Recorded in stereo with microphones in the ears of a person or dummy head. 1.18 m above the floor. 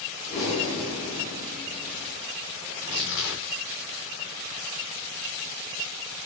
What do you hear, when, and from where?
0.3 s breathing: 35° left (ahead or behind), 1.4 m
2.7 s tearing paper: 55° left (ahead or behind), 0.9 m